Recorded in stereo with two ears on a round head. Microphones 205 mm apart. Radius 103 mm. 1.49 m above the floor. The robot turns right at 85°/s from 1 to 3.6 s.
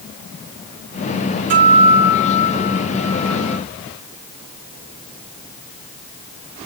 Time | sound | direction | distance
1.5 | a guitar | 50° right | 7 m